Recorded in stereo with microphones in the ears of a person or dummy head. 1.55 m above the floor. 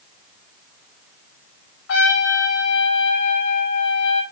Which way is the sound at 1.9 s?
65° left (ahead or behind).